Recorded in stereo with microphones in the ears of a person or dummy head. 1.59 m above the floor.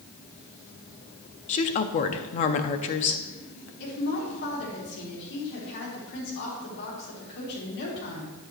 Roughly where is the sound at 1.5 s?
Left.